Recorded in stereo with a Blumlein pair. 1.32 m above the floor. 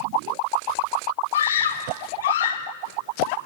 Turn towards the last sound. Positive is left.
turn(degrees=50)